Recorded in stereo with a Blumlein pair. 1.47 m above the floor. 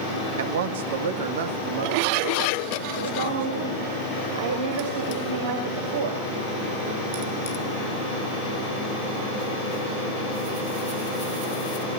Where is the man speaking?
55° right, 2.5 m; by 4.0 s 60° right, 4.5 m.